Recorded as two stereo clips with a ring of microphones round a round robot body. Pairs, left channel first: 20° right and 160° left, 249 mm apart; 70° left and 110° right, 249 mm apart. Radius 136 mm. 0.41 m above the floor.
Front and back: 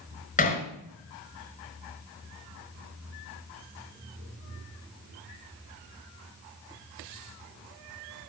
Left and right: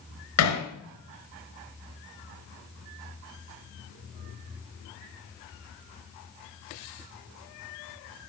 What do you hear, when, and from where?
0.4 s hammering: 40° left, 4 m